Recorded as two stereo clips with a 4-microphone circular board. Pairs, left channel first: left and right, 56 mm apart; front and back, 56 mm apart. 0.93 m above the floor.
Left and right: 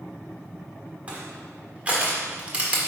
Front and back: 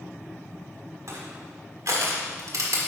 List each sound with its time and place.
1.1 s crushing: 155° right, 1.6 m